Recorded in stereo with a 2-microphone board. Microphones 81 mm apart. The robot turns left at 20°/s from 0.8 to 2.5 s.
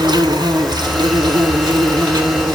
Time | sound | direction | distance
0.0 | an insect | 75° right | 1.6 m